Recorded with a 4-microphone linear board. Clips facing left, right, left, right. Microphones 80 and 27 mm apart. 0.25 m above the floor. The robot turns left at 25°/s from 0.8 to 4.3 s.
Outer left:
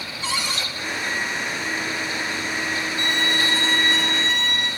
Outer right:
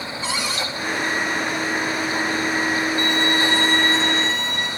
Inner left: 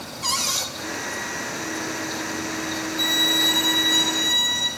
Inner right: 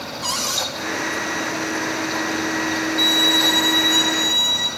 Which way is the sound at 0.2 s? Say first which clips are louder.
Outer right 1 dB, inner right 1 dB; 35° right (ahead or behind).